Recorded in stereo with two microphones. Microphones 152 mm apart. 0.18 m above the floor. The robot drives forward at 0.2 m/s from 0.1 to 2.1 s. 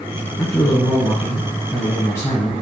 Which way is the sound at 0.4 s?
20° left (ahead or behind).